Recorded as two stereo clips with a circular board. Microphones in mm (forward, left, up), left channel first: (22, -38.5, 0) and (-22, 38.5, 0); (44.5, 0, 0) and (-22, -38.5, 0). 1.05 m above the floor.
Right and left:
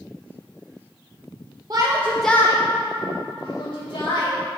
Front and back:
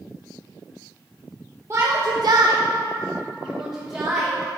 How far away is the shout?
About 0.9 m.